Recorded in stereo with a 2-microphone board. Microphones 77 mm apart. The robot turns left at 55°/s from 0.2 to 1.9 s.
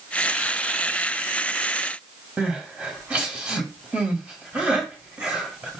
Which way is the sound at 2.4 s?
20° right (ahead or behind).